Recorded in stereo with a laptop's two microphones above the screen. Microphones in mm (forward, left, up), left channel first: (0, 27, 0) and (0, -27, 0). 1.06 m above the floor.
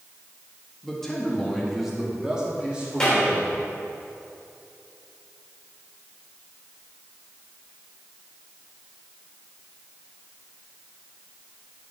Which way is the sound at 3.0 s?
15° left (ahead or behind).